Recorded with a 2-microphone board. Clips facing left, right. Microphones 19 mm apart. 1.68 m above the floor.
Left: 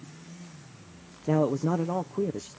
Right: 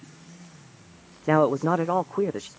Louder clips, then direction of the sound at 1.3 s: Right 5 dB; 50° right (ahead or behind).